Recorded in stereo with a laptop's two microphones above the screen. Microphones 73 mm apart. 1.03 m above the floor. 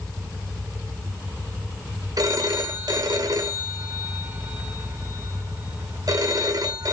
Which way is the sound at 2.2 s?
60° right (ahead or behind).